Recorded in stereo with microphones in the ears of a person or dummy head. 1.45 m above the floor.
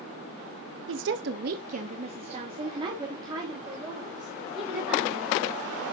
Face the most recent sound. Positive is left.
turn(degrees=-10)  # may be behind; listen again after turning